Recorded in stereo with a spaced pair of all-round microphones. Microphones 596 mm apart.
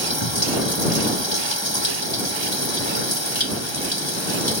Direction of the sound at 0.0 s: 45° left (ahead or behind).